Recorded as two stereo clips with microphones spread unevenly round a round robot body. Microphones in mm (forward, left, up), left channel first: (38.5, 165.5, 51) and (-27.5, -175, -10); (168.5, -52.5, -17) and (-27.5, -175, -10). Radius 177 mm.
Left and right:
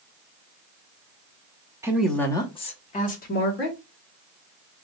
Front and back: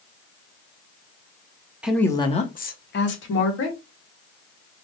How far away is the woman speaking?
About 0.6 m.